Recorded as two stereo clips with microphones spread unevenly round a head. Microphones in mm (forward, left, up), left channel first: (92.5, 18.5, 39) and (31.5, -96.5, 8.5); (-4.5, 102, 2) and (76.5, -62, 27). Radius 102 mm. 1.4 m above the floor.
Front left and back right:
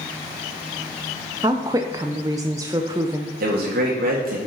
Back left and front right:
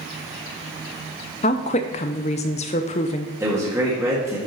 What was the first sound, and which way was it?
A woman speaking, 175° left.